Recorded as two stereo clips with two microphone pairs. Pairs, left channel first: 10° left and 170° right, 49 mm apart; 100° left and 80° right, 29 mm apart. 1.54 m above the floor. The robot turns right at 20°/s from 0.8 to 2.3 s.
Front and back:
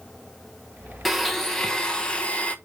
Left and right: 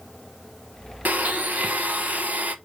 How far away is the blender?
About 1.1 m.